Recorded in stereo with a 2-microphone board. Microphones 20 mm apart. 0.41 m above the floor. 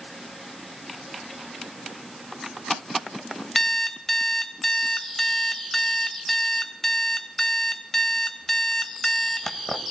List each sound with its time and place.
3.5 s an alarm clock: 25° left (ahead or behind), 1.0 m